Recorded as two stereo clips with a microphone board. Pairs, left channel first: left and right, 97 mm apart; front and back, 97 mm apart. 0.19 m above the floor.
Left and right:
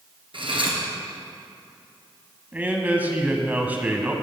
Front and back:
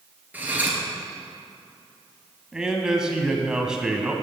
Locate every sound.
0.3 s cutlery clinking: 110° right, 2.0 m
2.5 s a man speaking: 115° right, 1.1 m